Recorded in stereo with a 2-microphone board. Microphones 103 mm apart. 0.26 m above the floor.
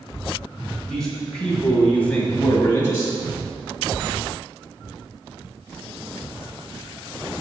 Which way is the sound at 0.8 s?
5° left (ahead or behind).